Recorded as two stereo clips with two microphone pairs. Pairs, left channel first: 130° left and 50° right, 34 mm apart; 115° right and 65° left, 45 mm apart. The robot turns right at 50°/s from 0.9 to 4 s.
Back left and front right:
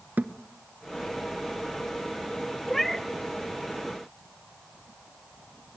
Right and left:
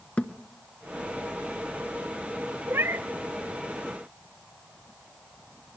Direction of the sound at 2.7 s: 35° left.